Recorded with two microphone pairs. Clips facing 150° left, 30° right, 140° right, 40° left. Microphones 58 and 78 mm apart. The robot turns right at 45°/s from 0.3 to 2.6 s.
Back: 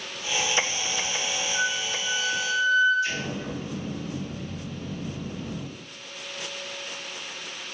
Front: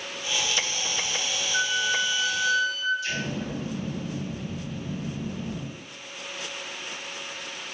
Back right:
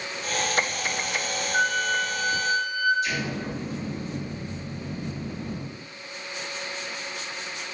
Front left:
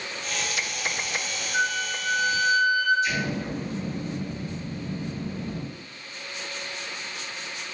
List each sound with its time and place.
1.5 s a flute: 60° right, 0.8 m; by 2.9 s 10° right, 0.8 m
3.0 s an explosion: 160° right, 1.2 m